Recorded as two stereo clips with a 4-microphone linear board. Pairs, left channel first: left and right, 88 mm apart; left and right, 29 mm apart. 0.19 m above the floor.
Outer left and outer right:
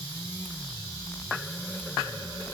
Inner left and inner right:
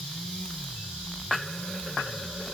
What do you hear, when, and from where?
Only background noise.